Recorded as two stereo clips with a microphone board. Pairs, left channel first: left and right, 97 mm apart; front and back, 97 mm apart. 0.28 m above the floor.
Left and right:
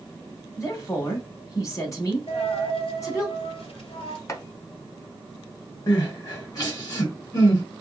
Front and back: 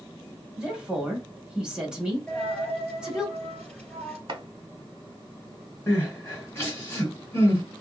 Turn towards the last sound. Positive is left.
turn(degrees=60)